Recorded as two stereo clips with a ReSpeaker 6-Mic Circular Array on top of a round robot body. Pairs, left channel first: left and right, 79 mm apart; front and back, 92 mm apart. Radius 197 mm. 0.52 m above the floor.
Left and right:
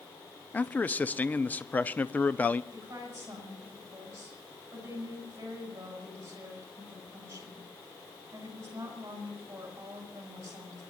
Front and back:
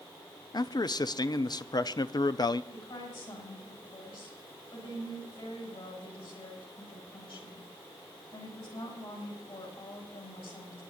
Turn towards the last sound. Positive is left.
turn(degrees=-35)